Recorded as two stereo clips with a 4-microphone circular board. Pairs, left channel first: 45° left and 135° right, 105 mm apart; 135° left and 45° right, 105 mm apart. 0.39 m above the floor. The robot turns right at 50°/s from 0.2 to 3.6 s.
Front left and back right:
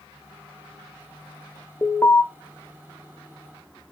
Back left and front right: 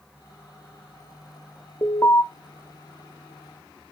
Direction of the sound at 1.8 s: 95° left.